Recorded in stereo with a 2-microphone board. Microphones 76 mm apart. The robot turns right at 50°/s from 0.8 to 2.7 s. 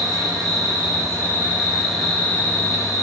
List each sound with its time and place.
0.0 s an insect: 55° right, 1.7 m; by 3.0 s 40° left, 1.7 m